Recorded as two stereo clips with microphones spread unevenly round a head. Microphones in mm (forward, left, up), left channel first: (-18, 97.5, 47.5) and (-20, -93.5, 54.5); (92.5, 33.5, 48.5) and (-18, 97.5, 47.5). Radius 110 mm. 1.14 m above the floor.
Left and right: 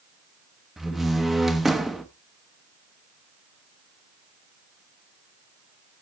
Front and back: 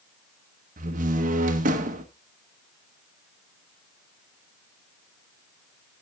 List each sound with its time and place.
0.8 s a door slam: straight behind, 1.2 m